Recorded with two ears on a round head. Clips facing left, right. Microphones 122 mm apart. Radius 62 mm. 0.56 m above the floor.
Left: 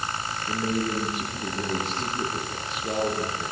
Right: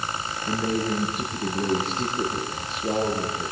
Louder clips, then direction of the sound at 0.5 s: Right 2 dB; 45° right (ahead or behind).